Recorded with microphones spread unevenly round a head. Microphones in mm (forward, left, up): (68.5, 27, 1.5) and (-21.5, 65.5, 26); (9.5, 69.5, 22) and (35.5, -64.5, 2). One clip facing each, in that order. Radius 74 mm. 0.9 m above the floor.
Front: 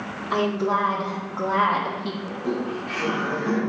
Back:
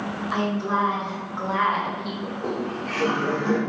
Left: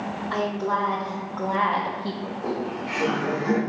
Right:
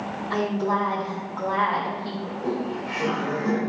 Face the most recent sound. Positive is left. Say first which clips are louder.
# front 1 dB, right 3 dB
turn(degrees=-170)